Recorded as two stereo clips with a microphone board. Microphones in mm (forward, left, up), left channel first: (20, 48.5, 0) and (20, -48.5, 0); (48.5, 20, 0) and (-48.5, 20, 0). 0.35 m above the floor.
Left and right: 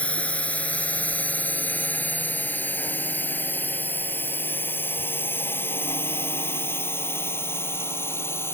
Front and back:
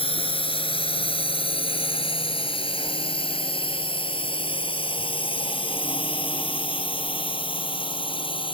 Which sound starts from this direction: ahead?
A drone, at 0.0 s.